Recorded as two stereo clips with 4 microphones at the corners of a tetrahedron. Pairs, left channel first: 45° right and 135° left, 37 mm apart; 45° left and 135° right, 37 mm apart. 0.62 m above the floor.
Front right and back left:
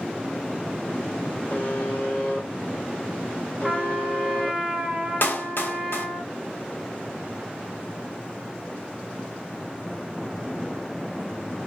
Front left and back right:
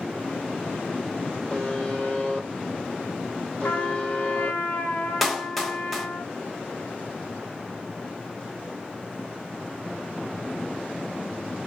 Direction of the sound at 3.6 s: 55° left.